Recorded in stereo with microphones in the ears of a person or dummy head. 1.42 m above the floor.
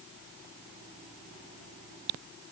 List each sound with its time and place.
Only background noise.